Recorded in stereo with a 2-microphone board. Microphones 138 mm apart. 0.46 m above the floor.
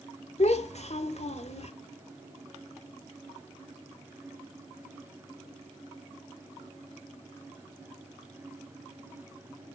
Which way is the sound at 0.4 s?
55° left (ahead or behind).